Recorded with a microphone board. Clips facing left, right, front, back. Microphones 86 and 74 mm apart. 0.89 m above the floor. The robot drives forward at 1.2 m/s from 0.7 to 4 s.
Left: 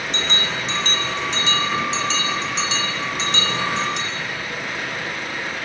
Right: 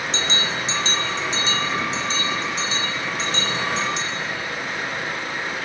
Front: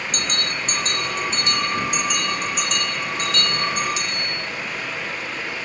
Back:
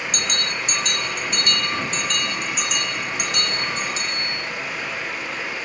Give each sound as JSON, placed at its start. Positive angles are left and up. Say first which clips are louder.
{"t": 0.1, "sound": "a bell", "louder": "left 1 dB, even", "azimuth_deg": 50, "distance_m": 3.5}